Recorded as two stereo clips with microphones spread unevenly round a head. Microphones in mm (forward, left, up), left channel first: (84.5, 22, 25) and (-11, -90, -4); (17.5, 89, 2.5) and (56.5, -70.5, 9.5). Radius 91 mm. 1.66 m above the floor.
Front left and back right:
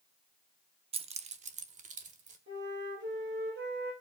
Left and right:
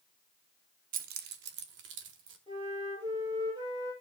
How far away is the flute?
About 7 m.